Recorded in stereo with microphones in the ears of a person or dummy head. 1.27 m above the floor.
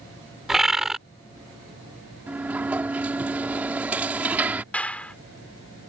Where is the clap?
5° left (ahead or behind).